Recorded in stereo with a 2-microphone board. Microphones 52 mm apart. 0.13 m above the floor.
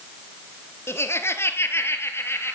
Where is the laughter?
55° left (ahead or behind), 2.0 m; by 2.5 s 50° left (ahead or behind), 3 m.